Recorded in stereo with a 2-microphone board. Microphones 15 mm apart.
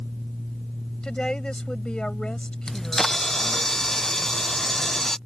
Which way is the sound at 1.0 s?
80° left.